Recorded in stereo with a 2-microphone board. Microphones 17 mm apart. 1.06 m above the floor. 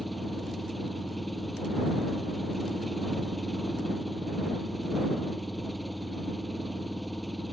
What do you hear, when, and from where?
0.0 s an engine running: 5° left (ahead or behind)